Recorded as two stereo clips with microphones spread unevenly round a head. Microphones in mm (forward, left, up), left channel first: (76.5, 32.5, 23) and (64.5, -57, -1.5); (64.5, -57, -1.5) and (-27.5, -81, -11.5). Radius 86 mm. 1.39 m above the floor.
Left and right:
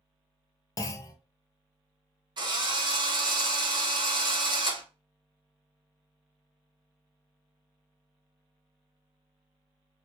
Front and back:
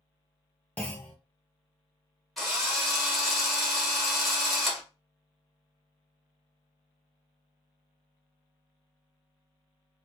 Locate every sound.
0.8 s a clunk: 85° left, 0.5 m
2.4 s a drill: 75° right, 1.8 m